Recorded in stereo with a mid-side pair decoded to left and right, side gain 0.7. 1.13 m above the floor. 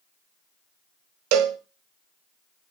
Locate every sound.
1.3 s a cowbell: 65° right, 1.4 m